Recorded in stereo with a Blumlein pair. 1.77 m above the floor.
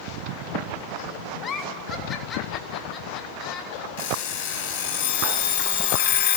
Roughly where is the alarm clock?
Ahead left.